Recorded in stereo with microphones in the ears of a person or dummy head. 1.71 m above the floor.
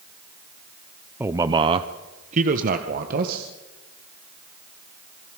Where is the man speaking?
10° right (ahead or behind), 0.7 m; by 3.5 s 50° right (ahead or behind), 1.9 m.